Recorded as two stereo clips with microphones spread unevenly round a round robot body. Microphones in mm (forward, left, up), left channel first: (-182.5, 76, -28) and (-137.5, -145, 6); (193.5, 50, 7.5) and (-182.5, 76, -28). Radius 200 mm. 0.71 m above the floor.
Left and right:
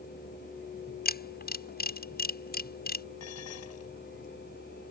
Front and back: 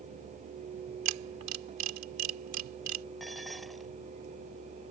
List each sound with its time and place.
1.1 s a camera shutter: 140° left
3.2 s dishes clattering: 85° left